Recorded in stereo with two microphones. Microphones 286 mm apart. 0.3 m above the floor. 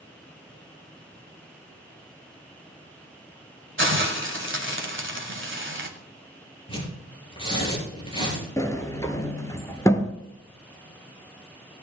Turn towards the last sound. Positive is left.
turn(degrees=10)  # may be behind; listen again after turning